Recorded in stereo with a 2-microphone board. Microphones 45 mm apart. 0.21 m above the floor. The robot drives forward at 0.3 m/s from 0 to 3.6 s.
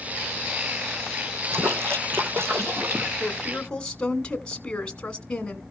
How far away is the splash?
About 2.5 m.